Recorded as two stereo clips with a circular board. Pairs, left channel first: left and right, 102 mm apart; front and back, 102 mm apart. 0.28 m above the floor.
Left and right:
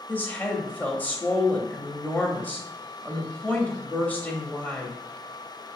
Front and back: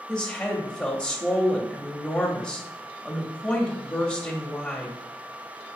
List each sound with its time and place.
0.1 s a woman speaking: 55° left, 0.9 m